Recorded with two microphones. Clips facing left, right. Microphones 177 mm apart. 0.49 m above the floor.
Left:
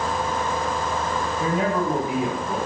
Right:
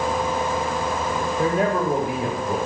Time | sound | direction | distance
1.4 | a man speaking | 50° right (ahead or behind) | 1.8 m